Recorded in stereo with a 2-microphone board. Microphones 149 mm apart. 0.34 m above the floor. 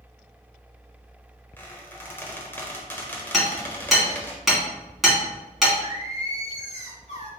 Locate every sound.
1.6 s a squeak: 15° left (ahead or behind), 1.0 m
3.3 s hammering: centre (ahead or behind), 1.8 m
5.8 s singing: 50° left (ahead or behind), 1.2 m